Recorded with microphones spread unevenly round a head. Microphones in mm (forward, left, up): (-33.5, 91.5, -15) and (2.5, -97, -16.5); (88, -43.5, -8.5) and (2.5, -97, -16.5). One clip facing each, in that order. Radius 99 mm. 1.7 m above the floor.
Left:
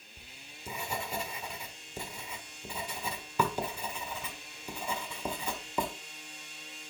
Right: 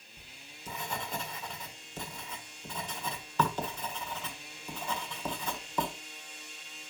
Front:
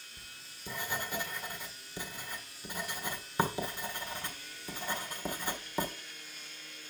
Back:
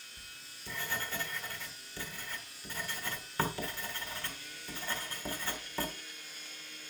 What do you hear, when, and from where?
0.2 s writing: 40° left, 1.4 m